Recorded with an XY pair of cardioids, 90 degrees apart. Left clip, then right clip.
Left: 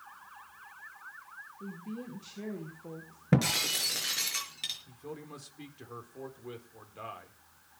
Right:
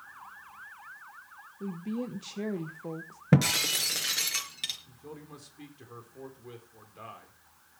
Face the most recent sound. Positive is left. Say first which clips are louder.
# left 2 dB
turn(degrees=20)